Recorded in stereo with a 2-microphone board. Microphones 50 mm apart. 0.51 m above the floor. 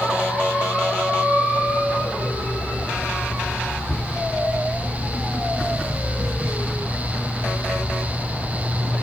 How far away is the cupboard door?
About 5.5 m.